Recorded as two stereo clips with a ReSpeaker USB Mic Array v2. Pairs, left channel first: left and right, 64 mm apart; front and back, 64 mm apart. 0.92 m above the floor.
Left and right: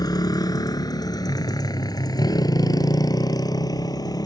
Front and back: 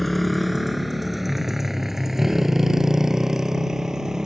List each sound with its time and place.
0.0 s a motorcycle: 90° left; by 4.2 s 100° left